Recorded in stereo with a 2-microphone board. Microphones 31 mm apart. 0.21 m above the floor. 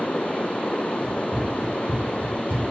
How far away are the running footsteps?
About 1.8 m.